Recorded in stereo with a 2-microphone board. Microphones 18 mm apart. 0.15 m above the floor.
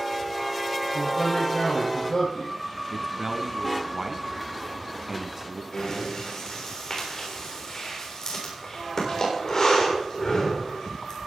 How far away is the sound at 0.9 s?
About 5.5 m.